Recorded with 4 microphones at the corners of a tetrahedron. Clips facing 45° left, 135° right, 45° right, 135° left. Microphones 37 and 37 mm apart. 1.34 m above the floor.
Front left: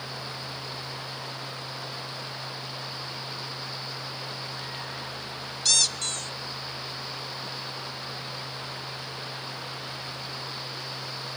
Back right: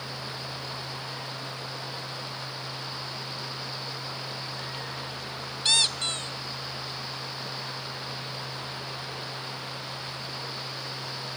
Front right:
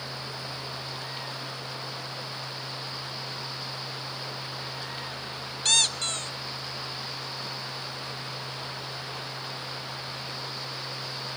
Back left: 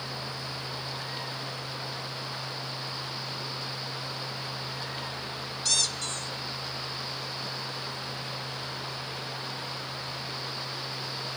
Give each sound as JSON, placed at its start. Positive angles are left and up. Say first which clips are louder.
{"t": 5.7, "sound": "a squeak", "louder": "back right 2 dB, front right 6 dB", "azimuth_deg": -75, "distance_m": 0.9}